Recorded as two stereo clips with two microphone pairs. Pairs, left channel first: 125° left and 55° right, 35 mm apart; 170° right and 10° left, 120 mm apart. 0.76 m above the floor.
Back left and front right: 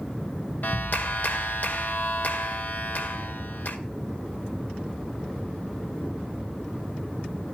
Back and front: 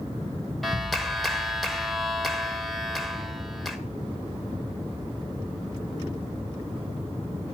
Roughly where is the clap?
Left.